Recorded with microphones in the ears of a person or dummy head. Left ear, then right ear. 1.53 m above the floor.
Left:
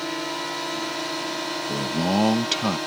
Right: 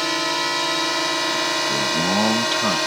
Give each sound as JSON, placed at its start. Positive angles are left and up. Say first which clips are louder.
{"t": 0.0, "sound": "a drone", "louder": "right 7 dB", "side_deg": -70}
{"t": 1.7, "sound": "a man speaking", "louder": "right 5 dB", "side_deg": 5}